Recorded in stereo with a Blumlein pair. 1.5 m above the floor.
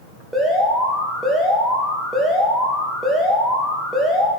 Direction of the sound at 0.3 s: 5° right.